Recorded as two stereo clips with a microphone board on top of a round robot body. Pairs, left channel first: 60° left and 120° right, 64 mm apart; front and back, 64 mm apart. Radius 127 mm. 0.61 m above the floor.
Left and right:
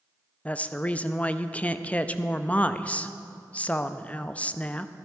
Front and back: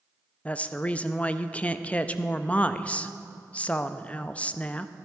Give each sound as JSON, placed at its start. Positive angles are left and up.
{"t": 0.5, "sound": "a woman speaking", "azimuth_deg": 30, "distance_m": 0.6}